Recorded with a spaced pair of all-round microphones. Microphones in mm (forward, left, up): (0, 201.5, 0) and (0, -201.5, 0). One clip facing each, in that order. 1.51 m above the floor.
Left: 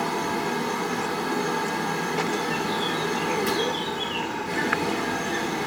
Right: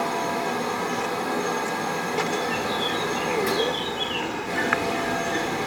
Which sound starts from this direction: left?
A fan, at 0.0 s.